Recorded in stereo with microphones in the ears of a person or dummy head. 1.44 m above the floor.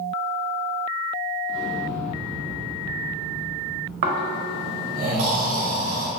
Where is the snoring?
45° right (ahead or behind), 0.5 m.